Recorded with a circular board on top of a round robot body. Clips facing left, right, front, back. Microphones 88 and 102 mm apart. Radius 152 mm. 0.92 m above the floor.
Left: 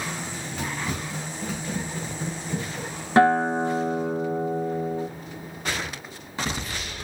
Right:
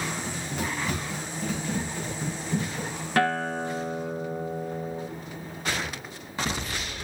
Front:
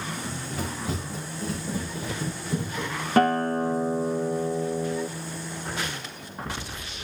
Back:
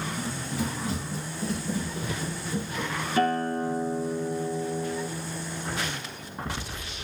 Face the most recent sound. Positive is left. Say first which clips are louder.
# left 7 dB, front 4 dB
turn(degrees=25)